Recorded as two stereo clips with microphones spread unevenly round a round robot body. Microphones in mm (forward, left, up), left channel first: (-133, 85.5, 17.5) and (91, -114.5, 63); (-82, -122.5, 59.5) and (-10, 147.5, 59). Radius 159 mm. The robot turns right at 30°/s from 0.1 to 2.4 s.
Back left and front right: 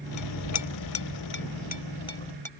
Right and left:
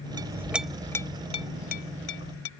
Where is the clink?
150° left; by 2.5 s 145° right.